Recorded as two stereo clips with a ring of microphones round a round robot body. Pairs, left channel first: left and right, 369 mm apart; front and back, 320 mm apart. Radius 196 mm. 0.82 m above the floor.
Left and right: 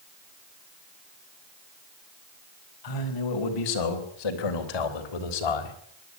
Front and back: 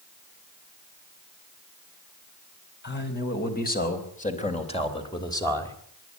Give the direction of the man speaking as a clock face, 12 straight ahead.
10 o'clock.